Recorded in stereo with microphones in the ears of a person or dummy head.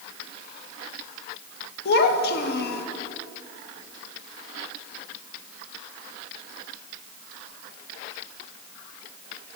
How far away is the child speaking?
About 1.1 m.